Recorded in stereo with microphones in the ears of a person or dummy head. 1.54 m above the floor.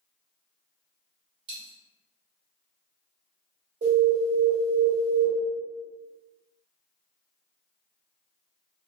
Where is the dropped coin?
25° right (ahead or behind), 1.5 m.